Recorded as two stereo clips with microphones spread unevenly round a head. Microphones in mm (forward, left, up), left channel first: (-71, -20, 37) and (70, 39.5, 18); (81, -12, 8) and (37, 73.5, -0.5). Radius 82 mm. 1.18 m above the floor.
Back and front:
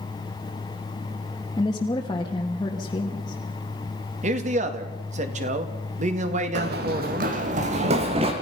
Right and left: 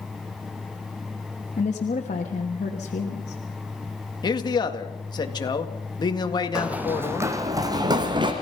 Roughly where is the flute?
I don't hear a flute.